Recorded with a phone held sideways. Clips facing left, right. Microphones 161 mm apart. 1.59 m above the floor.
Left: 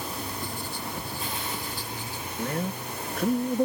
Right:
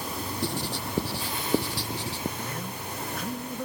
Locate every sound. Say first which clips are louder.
0.4 s writing: right 4 dB; 80° right
2.4 s a man speaking: left 5 dB; 55° left (ahead or behind)